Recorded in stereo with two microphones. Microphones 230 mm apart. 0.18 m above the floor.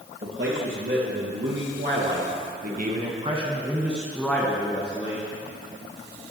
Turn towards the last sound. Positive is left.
turn(degrees=25)  # may be behind; listen again after turning